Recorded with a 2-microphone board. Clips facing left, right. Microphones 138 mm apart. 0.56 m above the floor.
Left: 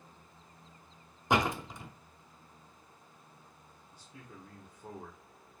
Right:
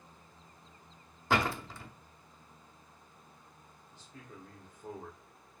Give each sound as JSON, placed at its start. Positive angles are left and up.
{"t": 1.3, "sound": "a door slam", "side_deg": 20, "distance_m": 0.6}
{"t": 3.9, "sound": "a man speaking", "side_deg": 10, "distance_m": 1.2}